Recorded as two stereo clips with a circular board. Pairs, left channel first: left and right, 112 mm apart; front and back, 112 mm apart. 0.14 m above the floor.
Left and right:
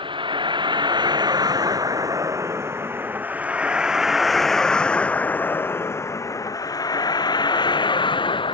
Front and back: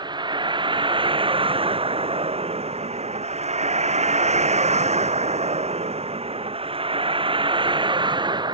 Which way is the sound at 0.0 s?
130° right.